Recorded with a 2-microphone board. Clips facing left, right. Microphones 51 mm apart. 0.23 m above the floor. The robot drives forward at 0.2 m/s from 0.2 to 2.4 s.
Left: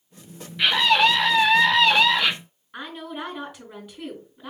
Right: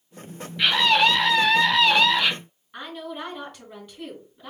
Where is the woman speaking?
5° left (ahead or behind), 3.5 m.